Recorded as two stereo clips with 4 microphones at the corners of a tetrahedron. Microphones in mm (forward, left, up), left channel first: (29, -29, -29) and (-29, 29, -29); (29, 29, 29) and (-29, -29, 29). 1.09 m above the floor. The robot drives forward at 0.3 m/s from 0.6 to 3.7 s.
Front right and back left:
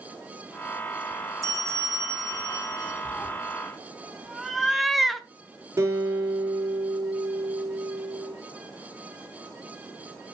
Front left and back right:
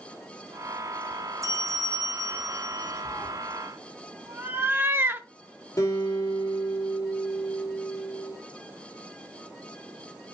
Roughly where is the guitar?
Left.